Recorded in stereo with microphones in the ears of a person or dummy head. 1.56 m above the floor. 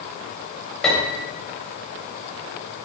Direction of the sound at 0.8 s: Centre (ahead or behind).